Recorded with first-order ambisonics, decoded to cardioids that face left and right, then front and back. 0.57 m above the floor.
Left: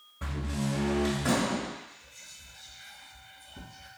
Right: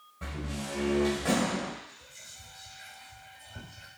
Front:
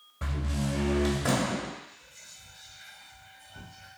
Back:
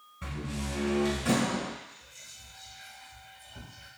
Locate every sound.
0.2 s a door slam: 5° left, 1.8 m
1.8 s whispering: 85° right, 2 m